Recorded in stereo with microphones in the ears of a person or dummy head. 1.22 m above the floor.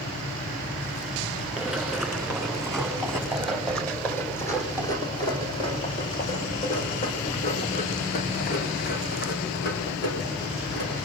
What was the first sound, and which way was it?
Running footsteps, centre (ahead or behind).